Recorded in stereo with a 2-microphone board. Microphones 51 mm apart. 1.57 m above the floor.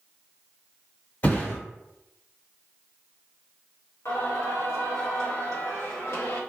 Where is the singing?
70° left (ahead or behind), 1.1 m.